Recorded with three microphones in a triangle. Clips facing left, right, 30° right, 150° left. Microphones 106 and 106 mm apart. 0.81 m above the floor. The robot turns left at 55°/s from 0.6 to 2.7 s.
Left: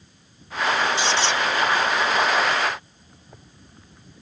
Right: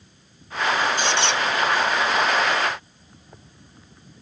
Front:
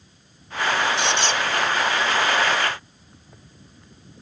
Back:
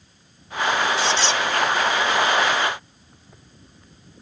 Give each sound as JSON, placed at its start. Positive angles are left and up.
{"t": 1.0, "sound": "a squeak", "azimuth_deg": -50}